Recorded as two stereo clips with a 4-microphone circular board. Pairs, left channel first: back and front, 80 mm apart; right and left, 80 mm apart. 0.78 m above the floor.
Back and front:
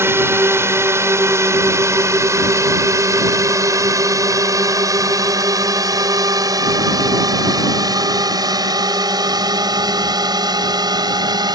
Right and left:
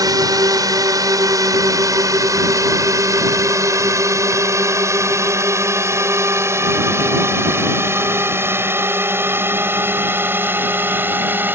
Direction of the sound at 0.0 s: 55° left.